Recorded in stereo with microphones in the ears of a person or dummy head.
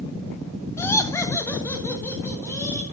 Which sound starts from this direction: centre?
Laughter, at 0.8 s.